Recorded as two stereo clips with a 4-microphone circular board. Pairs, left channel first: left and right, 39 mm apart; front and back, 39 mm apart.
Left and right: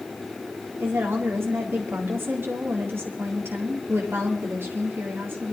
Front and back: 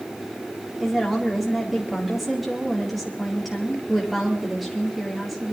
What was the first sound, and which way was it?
A woman speaking, 95° right.